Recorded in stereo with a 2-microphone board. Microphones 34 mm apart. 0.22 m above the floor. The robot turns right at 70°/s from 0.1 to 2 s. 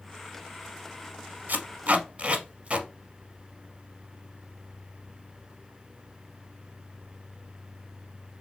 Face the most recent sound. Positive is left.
turn(degrees=-40)  # may be behind; listen again after turning